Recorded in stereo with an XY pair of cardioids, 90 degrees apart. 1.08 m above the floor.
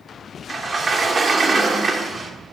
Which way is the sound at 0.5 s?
45° right.